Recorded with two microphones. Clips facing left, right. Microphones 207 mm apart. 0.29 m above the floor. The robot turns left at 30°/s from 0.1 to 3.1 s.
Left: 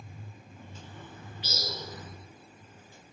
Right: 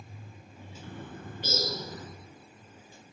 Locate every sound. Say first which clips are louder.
0.8 s a bird: right 9 dB; 105° right, 3.5 m; by 2.1 s 140° right, 3.5 m